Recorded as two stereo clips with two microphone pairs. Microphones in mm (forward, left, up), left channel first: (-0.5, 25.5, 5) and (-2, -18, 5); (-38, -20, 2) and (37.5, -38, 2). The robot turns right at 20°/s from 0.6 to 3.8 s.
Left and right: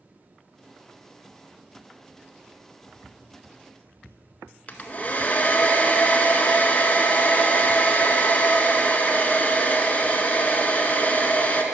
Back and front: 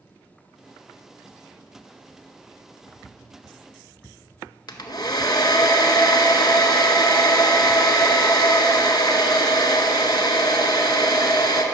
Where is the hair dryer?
140° left, 0.6 m.